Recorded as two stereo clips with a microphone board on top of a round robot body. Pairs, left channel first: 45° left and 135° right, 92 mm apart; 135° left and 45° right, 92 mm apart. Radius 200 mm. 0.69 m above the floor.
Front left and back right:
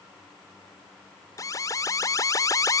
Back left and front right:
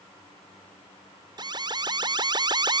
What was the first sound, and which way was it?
An alarm, 10° right.